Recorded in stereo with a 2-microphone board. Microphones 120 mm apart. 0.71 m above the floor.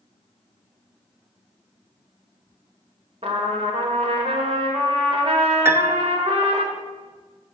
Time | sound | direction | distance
3.2 | a trumpet | 55° right (ahead or behind) | 1.5 m
5.7 | a piano | 20° right (ahead or behind) | 0.5 m